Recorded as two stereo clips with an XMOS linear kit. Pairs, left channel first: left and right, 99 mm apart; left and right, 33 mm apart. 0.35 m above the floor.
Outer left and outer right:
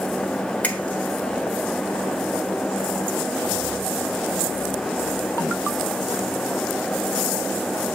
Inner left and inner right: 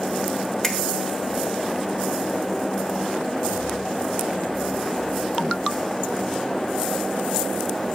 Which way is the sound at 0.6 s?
15° left (ahead or behind).